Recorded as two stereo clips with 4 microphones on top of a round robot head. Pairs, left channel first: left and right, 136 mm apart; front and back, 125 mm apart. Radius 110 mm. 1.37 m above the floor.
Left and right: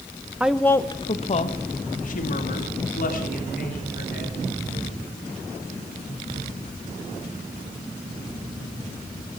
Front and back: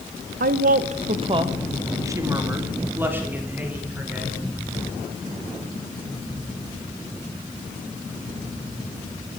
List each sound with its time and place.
0.4 s a woman speaking: 170° right, 0.8 m; by 4.4 s 100° left, 4.5 m